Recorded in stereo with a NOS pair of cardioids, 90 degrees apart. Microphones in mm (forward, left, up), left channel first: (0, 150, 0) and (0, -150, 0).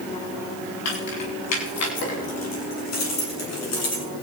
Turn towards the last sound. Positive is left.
turn(degrees=55)